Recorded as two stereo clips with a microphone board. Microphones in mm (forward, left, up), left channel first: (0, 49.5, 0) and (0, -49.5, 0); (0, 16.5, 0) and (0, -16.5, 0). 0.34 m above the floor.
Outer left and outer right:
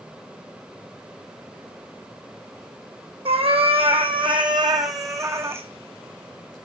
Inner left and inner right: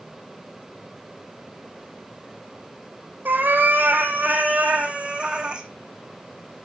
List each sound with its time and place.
3.2 s a cat meowing: 75° right (ahead or behind), 1.2 m; by 5.7 s 25° right (ahead or behind), 1.7 m